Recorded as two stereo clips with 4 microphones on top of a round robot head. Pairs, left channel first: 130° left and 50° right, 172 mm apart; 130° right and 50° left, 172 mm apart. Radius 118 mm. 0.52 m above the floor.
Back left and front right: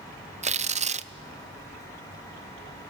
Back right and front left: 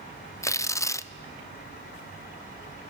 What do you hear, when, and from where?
0.4 s tearing paper: 65° right, 0.8 m